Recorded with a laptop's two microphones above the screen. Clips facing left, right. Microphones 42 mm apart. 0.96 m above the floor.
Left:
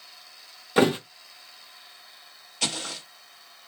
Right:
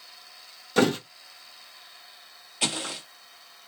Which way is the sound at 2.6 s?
15° right (ahead or behind).